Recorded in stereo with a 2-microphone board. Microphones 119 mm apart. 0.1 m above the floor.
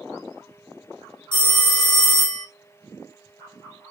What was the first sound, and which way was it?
A phone ringing, 40° left (ahead or behind).